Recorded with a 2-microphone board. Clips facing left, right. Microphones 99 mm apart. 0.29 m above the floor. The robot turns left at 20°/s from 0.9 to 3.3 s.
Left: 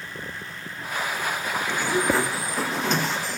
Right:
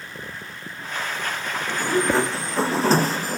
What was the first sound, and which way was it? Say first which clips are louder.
A sliding door: right 2 dB; 10° right.